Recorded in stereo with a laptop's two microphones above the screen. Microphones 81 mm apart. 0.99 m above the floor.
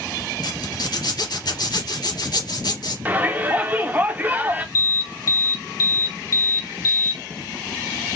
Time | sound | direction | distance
0.4 | a zipper | 60° left (ahead or behind) | 2.5 m
3.0 | a shout | 20° right (ahead or behind) | 0.8 m
4.8 | an alarm | 45° left (ahead or behind) | 0.7 m